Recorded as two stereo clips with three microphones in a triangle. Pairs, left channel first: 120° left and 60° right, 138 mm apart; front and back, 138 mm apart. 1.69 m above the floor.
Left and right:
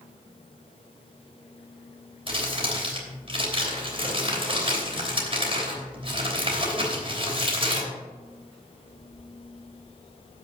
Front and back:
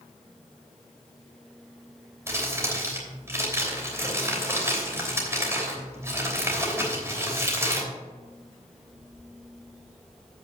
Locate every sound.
2.3 s crumpling: 110° right, 3 m